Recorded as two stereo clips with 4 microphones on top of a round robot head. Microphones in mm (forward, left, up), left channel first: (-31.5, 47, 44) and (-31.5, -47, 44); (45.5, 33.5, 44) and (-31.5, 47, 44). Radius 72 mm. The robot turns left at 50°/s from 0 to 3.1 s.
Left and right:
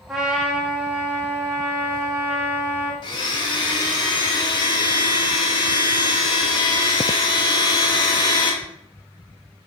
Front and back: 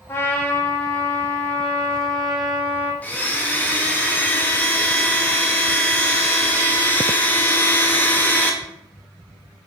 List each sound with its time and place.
0.1 s a trumpet: straight ahead, 0.7 m; by 2.9 s 140° right, 0.7 m
3.0 s a blender: 60° left, 0.5 m; by 8.6 s 55° left, 0.5 m